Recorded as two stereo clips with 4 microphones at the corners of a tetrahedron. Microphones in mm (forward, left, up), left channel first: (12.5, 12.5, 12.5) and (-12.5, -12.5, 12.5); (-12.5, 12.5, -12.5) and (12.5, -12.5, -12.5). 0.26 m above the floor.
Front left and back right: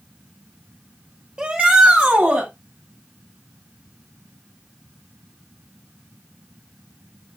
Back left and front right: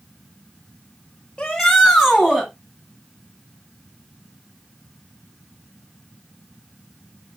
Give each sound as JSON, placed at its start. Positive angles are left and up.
{"t": 1.4, "sound": "a shout", "azimuth_deg": -165, "distance_m": 1.7}